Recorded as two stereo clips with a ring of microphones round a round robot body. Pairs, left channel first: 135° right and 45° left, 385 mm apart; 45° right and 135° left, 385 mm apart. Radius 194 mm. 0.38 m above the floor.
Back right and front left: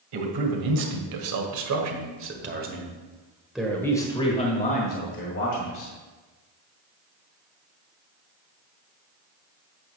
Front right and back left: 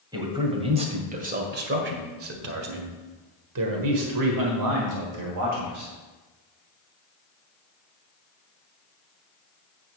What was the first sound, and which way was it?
A man speaking, 55° left.